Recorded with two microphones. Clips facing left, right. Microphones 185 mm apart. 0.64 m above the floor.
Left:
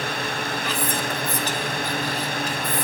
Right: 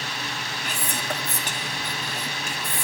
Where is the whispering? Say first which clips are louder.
Left 2 dB; 45° right (ahead or behind), 1.5 m.